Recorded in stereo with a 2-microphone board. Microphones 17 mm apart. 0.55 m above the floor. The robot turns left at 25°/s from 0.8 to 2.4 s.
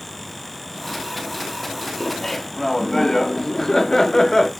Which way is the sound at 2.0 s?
25° left (ahead or behind).